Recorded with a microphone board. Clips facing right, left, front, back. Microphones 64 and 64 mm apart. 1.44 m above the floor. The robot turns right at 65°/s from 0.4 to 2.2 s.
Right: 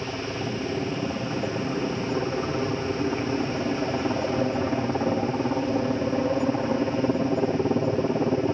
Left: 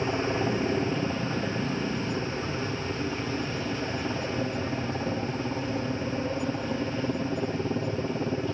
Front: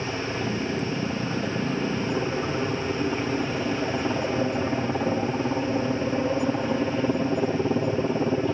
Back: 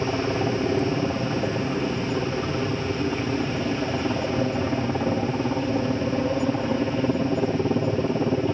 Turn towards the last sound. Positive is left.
turn(degrees=-90)